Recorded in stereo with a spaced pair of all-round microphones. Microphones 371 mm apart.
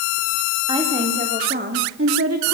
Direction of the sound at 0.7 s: 10° right (ahead or behind).